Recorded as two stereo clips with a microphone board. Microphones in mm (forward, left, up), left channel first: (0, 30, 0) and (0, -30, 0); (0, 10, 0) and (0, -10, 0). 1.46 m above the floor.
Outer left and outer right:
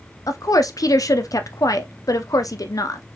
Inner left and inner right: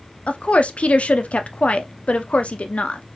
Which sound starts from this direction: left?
A woman speaking, at 0.3 s.